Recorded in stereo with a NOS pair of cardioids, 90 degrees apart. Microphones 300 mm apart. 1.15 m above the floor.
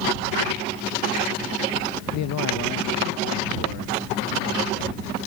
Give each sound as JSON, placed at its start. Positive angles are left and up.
{"t": 2.1, "sound": "a man speaking", "azimuth_deg": 65}